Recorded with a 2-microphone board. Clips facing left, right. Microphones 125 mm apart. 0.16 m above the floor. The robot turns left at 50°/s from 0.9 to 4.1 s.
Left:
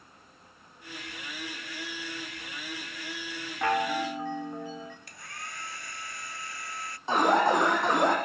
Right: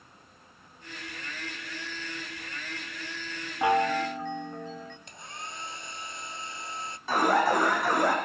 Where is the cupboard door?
No cupboard door in this recording.